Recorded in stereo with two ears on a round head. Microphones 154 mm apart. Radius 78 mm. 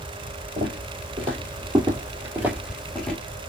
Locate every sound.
0.6 s footsteps: 45° right (ahead or behind), 2.5 m; by 3.2 s 10° left (ahead or behind), 1.7 m